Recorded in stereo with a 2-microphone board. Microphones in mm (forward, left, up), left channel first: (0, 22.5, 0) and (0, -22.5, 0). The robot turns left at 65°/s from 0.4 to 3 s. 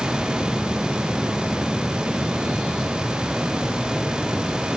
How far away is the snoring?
I don't hear snoring.